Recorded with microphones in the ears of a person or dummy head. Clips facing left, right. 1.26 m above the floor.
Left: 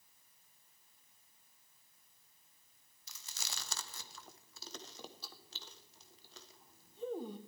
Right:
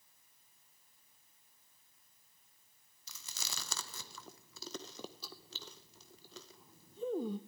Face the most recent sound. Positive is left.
turn(degrees=-65)  # may be behind; listen again after turning